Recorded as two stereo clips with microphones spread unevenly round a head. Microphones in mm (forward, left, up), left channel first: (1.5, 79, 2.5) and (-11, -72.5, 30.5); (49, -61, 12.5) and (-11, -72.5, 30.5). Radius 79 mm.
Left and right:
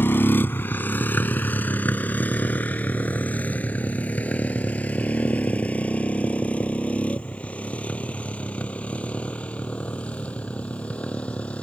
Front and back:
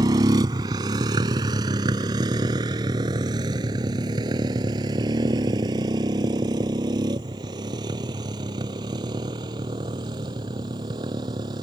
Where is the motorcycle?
165° left; by 11.7 s 170° left.